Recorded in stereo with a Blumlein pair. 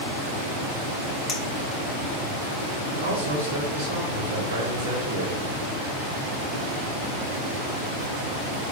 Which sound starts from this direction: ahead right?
A man speaking, at 2.9 s.